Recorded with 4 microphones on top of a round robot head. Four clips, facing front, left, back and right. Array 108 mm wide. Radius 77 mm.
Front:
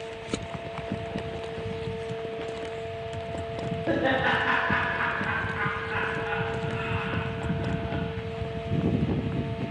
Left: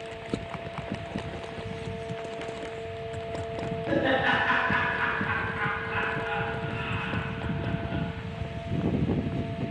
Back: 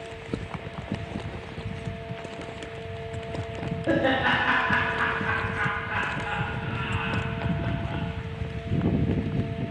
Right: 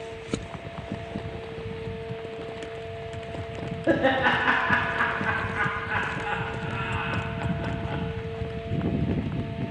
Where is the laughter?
90° right, 1.6 m.